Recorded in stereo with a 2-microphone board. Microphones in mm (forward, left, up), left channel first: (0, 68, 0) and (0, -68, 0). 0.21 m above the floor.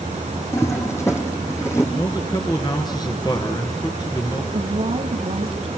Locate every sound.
0.5 s a toilet flushing: 20° left (ahead or behind), 2.5 m
1.9 s a man speaking: 30° left (ahead or behind), 3.5 m
4.5 s a woman speaking: 50° right (ahead or behind), 2 m